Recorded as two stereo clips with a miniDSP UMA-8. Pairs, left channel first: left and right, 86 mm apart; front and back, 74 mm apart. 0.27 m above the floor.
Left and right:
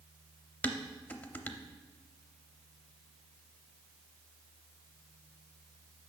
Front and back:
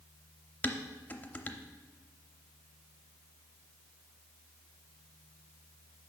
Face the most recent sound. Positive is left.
turn(degrees=40)